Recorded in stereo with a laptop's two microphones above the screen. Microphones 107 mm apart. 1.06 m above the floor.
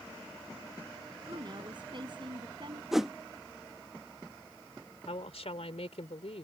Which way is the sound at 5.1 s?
85° left.